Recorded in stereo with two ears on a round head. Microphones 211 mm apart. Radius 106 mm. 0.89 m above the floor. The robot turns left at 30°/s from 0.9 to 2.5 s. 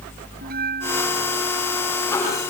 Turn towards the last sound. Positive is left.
turn(degrees=-85)